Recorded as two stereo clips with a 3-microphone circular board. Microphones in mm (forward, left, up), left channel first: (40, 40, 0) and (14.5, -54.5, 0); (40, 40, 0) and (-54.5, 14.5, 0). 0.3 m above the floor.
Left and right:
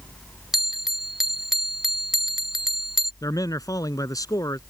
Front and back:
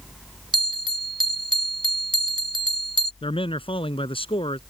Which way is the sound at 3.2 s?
25° left.